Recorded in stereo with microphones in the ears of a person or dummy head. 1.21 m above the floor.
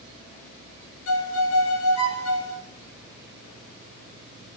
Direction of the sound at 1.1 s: 75° left (ahead or behind).